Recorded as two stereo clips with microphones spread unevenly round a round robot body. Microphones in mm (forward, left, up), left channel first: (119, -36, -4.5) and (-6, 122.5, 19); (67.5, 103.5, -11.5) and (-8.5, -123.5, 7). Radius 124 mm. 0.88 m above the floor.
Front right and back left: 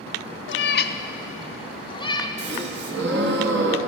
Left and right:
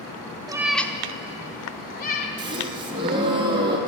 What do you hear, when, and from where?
0.5 s a cat meowing: 40° right, 0.6 m; by 2.3 s 20° left, 1.5 m
2.4 s a gasp: straight behind, 1.0 m